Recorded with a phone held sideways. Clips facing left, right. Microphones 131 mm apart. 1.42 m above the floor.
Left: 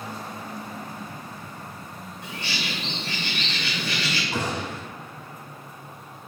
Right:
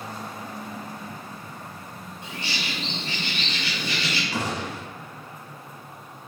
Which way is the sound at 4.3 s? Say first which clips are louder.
Even; 25° left (ahead or behind).